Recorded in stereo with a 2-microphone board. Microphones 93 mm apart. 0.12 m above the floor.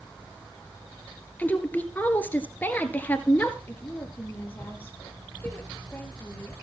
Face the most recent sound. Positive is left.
turn(degrees=20)  # may be behind; listen again after turning